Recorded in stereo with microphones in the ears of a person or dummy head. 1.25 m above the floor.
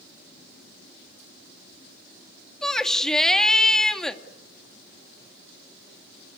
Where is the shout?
5° left (ahead or behind), 2 m.